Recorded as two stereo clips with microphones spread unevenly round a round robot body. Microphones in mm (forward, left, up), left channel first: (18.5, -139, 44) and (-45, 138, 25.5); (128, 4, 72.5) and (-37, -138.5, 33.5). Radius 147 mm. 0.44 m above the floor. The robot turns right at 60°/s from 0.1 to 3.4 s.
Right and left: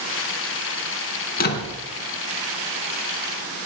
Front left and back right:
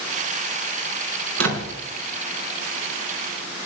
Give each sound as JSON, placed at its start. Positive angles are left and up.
{"t": 1.4, "sound": "a door slam", "azimuth_deg": -140, "distance_m": 3.5}